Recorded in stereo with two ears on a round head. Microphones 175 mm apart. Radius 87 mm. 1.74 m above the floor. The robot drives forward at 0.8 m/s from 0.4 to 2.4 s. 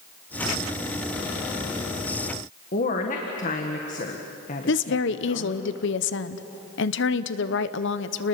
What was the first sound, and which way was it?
A woman speaking, 40° left (ahead or behind).